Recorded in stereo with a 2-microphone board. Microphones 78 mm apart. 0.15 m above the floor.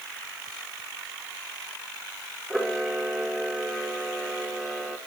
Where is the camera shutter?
5° left (ahead or behind), 3 m.